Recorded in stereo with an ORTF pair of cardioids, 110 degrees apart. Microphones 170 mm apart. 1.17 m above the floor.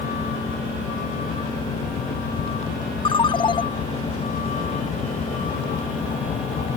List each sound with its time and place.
0.0 s a vehicle: 60° left; by 6.8 s 50° left
3.0 s a ringtone: 30° left